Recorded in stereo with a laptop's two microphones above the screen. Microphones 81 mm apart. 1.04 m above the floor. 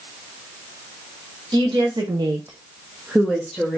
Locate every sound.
1.5 s a woman speaking: 70° right (ahead or behind), 0.9 m; by 3.8 s 5° left (ahead or behind), 1.5 m